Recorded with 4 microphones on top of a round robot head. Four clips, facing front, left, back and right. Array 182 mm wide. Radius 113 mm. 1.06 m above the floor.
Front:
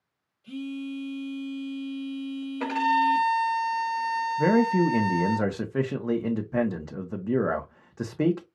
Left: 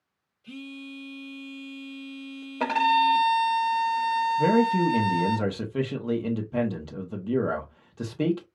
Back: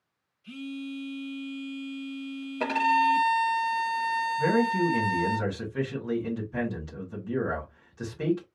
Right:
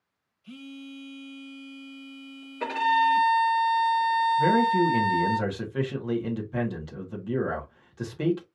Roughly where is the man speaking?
Ahead left.